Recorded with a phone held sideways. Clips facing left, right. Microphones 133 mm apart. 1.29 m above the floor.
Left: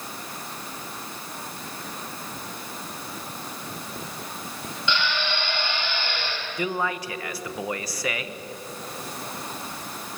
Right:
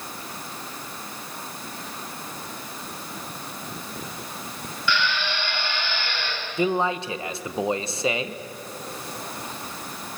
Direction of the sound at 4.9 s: 20° left (ahead or behind).